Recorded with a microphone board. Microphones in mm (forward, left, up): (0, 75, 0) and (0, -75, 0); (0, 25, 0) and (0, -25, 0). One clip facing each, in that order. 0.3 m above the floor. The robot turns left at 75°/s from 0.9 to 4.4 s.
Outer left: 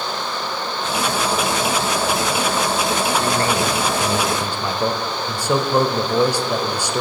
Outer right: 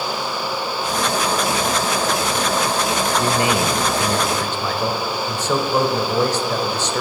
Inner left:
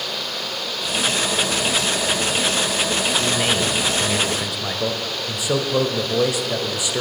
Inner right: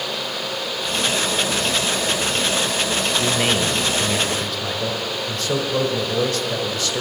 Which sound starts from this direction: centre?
A man speaking, at 3.2 s.